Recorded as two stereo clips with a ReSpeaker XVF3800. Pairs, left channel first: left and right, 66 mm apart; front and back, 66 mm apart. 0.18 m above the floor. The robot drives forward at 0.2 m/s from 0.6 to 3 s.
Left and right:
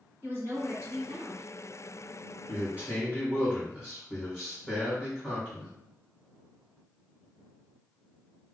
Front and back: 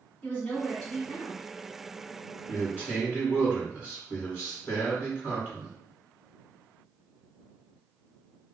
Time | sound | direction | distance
0.2 | a woman speaking | 65° right | 1.9 m
2.5 | a man speaking | 140° right | 1.6 m